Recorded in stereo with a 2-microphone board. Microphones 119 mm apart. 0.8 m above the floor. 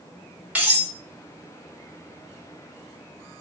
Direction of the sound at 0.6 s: 10° right (ahead or behind).